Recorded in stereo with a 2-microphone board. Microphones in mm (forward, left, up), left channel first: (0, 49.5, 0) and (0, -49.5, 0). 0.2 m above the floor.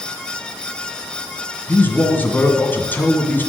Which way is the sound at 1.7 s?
20° left (ahead or behind).